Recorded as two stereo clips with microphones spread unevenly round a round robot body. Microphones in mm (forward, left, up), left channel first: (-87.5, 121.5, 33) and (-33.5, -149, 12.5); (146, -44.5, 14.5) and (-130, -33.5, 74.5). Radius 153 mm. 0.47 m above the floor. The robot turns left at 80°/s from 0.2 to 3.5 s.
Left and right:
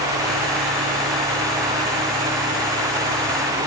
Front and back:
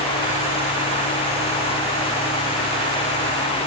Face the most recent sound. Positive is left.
No sound to turn to.